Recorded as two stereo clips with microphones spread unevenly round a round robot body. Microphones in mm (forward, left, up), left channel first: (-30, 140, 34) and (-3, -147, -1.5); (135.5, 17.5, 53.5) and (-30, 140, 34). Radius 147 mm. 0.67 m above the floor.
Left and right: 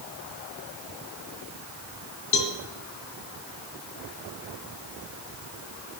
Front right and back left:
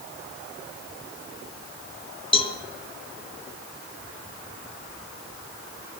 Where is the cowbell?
25° left, 1.7 m.